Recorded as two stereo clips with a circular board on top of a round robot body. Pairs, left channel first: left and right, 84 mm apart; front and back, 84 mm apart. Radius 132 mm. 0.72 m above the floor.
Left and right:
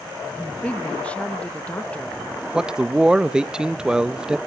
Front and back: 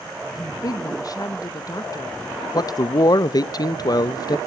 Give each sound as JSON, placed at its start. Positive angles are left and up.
{"t": 0.3, "sound": "a woman speaking", "azimuth_deg": 20, "distance_m": 0.8}
{"t": 2.5, "sound": "a man speaking", "azimuth_deg": -10, "distance_m": 0.6}